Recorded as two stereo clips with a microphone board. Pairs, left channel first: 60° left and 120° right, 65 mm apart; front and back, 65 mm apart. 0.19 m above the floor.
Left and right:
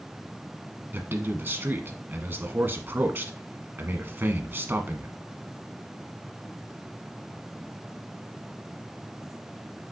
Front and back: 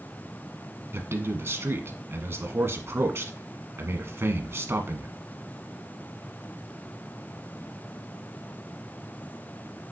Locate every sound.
0.9 s a man speaking: 155° right, 1.4 m